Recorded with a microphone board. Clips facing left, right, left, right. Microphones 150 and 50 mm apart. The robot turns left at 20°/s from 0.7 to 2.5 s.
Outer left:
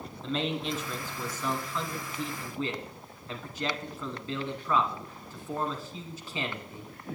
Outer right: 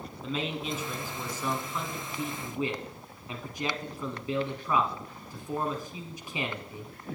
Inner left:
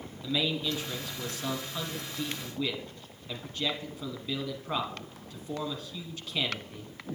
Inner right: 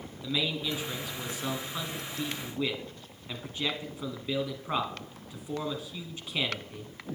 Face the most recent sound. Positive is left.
turn(degrees=-15)  # may be behind; listen again after turning